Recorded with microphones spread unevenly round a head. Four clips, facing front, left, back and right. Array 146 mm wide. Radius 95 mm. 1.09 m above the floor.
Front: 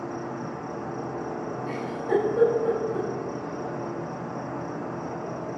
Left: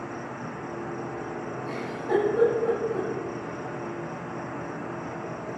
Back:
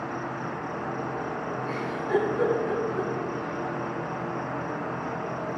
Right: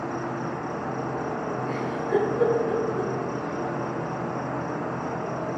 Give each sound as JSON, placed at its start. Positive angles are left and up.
{"t": 0.0, "sound": "an insect", "azimuth_deg": -125, "distance_m": 0.9}
{"t": 1.7, "sound": "a giggle", "azimuth_deg": 20, "distance_m": 8.0}